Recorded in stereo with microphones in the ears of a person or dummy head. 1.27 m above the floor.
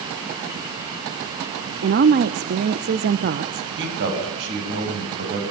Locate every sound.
1.8 s a woman speaking: 50° right (ahead or behind), 1.0 m
3.8 s a man speaking: 60° right (ahead or behind), 7 m